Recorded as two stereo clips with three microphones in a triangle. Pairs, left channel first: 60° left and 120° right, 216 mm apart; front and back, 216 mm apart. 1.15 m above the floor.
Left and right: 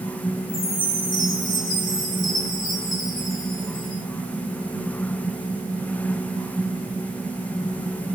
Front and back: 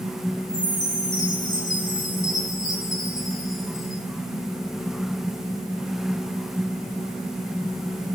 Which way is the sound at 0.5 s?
50° left.